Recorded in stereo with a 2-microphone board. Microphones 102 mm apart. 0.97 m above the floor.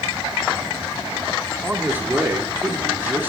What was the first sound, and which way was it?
A man speaking, 20° right (ahead or behind).